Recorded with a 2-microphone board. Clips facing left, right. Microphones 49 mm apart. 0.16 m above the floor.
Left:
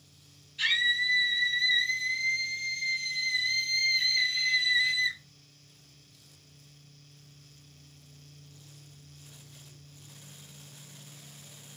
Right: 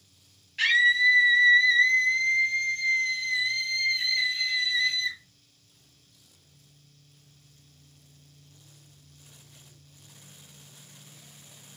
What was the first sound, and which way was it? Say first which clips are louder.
A scream: right 7 dB; 60° right (ahead or behind).